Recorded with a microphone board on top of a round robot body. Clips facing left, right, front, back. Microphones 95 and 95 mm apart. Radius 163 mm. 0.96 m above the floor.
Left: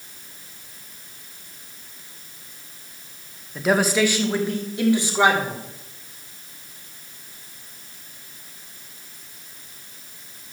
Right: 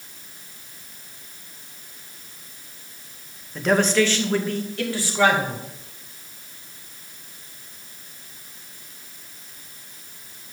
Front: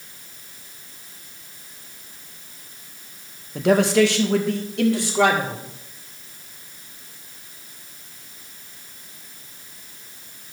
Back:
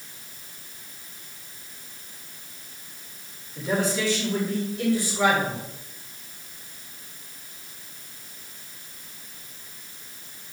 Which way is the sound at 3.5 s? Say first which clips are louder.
Right 1 dB, front 9 dB; 5° left.